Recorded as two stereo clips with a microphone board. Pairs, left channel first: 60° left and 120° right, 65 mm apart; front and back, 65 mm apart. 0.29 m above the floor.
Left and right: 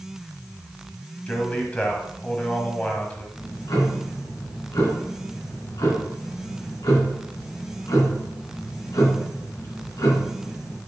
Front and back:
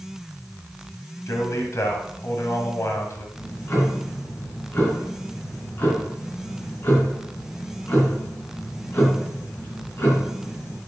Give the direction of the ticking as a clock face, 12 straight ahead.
10 o'clock.